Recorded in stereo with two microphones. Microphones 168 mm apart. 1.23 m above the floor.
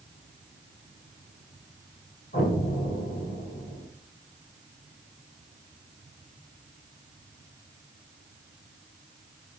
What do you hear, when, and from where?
2.3 s an explosion: 65° left (ahead or behind), 2.5 m